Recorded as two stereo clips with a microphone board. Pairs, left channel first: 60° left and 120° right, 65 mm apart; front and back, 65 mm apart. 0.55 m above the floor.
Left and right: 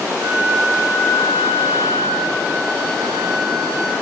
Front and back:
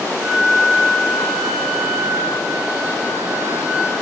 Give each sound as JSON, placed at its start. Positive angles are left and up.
{"t": 0.2, "sound": "a flute", "azimuth_deg": -105, "distance_m": 1.8}